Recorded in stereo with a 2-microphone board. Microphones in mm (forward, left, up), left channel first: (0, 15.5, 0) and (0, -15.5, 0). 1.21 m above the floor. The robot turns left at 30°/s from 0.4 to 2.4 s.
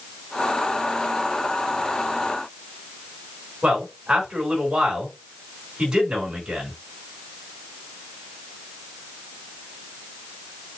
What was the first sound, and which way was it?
A man speaking, 25° right (ahead or behind).